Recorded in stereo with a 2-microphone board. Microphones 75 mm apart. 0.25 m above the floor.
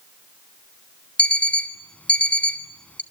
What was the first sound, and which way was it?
An alarm clock, 20° left (ahead or behind).